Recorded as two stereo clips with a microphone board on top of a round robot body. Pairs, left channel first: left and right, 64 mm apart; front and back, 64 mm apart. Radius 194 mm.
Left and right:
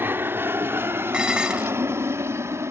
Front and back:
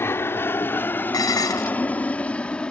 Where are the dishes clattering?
15° right.